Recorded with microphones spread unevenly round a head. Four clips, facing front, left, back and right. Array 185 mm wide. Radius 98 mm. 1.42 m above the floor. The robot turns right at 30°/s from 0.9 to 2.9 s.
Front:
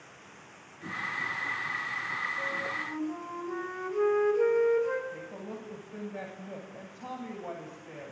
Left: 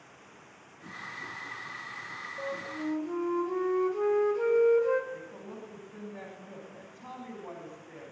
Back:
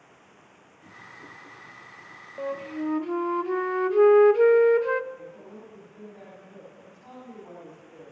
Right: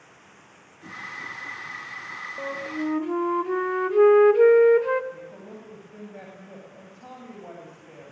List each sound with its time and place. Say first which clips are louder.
2.4 s a flute: right 6 dB, back 5 dB; 130° right, 1.5 m; by 5.0 s 115° right, 1.5 m
5.1 s a woman speaking: right 1 dB, front 2 dB; 25° right, 10 m